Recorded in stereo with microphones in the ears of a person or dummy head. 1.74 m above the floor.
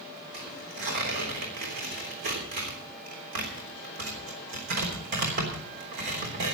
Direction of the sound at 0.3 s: 55° right (ahead or behind).